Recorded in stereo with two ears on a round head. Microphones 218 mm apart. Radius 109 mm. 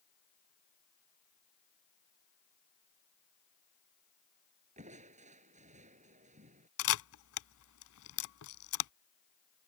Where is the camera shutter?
60° left (ahead or behind).